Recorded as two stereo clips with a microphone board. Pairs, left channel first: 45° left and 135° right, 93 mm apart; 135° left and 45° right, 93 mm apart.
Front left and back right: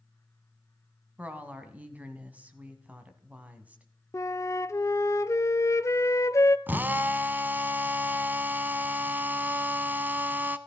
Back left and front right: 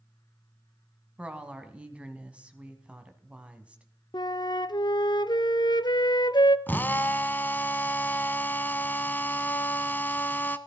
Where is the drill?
Straight behind, 0.7 m.